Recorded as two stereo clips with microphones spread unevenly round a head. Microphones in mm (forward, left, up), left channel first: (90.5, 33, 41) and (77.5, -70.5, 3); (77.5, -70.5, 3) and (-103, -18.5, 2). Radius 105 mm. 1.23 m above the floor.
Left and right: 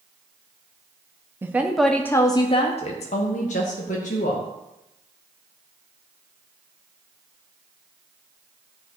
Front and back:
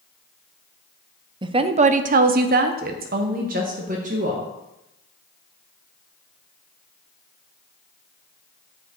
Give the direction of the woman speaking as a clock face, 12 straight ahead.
5 o'clock.